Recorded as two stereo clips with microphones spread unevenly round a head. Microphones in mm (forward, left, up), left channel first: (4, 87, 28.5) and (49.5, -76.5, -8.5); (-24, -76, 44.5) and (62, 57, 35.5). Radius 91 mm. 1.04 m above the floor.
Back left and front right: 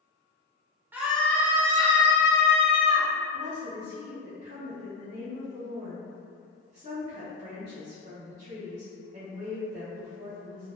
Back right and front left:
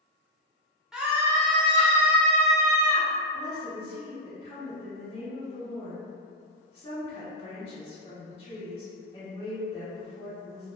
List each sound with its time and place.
0.9 s a scream: 20° right, 0.6 m; by 3.1 s 100° left, 1.1 m
3.3 s a woman speaking: 60° right, 0.9 m